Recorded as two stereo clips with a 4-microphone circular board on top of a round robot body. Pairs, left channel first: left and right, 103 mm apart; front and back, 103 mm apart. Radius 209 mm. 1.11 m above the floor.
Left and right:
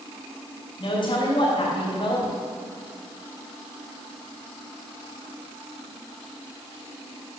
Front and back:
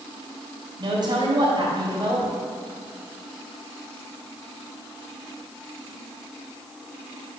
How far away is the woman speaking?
About 3 m.